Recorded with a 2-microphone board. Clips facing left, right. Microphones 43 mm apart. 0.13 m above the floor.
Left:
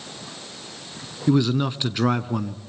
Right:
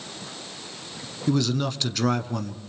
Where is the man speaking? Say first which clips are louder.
Left 4 dB; 20° left (ahead or behind), 1.1 m.